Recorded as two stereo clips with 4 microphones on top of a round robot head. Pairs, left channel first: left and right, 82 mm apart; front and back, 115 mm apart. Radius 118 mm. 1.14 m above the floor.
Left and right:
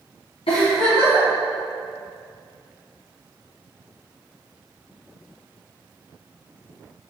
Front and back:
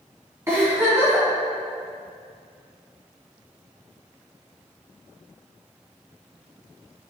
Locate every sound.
0.5 s a giggle: 115° left, 2.5 m